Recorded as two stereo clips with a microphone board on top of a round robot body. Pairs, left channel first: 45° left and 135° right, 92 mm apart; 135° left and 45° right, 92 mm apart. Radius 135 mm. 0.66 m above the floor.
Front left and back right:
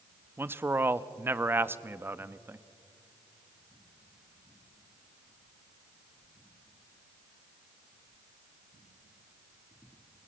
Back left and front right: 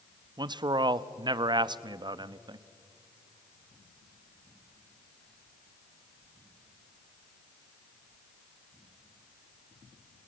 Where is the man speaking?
70° right, 0.9 m.